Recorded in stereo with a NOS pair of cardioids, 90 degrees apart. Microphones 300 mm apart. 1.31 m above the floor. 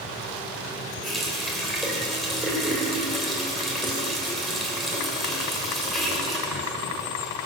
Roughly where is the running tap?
Ahead.